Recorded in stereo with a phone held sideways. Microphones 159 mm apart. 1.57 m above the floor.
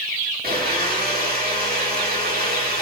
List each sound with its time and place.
0.4 s a blender: 75° right (ahead or behind), 2.5 m